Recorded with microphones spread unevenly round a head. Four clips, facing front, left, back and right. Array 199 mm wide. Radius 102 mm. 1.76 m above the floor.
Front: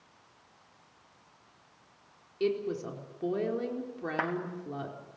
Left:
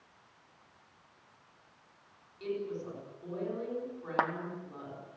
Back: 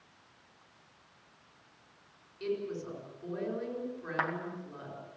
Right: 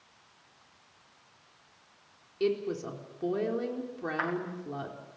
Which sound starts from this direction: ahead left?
A clap, at 4.2 s.